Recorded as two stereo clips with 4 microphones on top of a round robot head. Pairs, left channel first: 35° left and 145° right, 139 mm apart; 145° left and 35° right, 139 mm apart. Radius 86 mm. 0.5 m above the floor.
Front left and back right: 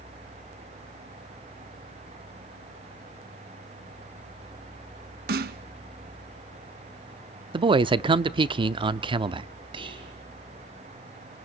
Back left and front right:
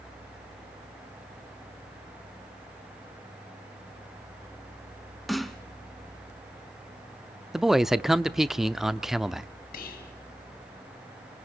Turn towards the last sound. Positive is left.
turn(degrees=160)